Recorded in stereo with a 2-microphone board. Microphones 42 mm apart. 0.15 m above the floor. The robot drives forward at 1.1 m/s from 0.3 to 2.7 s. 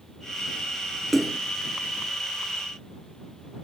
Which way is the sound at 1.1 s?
Centre (ahead or behind).